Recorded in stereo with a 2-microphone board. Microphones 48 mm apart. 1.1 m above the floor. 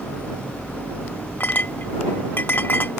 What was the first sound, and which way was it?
A clink, 40° left (ahead or behind).